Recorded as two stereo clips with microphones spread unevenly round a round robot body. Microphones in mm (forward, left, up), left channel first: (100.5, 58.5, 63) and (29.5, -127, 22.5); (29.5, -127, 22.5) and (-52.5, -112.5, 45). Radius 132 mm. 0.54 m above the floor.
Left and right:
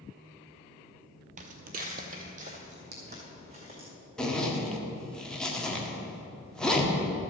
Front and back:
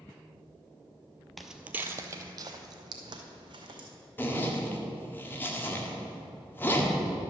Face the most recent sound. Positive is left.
turn(degrees=-30)